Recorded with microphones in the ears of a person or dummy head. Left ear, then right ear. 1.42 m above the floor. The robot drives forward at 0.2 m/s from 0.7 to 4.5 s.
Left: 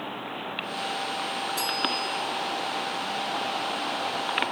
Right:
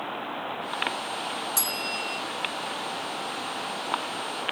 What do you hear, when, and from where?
1.6 s a bell: 55° right (ahead or behind), 1.8 m